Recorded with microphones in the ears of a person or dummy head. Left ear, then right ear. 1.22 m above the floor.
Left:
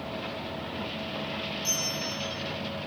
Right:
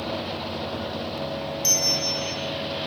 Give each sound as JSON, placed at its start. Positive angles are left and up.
{"t": 1.6, "sound": "a bell", "side_deg": -30, "distance_m": 0.7}